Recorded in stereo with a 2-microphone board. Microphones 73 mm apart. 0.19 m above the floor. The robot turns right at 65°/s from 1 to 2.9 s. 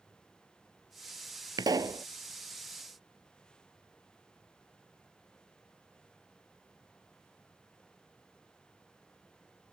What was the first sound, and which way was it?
A pop, 75° right.